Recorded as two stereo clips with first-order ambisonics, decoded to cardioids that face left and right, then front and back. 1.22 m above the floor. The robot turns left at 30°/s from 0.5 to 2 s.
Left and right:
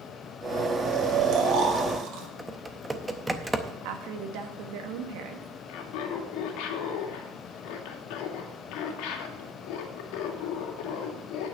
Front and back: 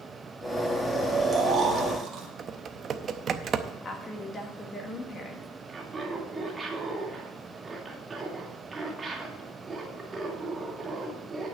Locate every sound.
0.8 s snoring: 95° right, 1.9 m; by 2.3 s 130° right, 1.9 m
2.4 s typing on a keyboard: 165° right, 0.6 m
3.8 s a woman speaking: 70° right, 1.6 m
5.7 s laughter: 105° left, 2 m